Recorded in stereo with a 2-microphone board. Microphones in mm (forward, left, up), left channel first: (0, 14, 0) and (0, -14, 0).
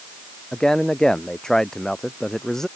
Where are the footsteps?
No footsteps in this recording.